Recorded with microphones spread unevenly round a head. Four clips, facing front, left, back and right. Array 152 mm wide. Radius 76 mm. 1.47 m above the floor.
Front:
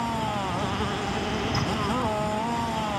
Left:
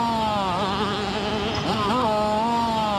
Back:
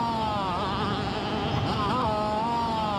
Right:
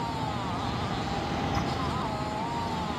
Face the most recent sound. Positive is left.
turn(degrees=85)